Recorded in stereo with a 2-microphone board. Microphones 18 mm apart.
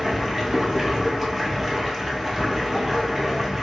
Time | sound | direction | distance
0.0 | running water | 5° right (ahead or behind) | 1.2 m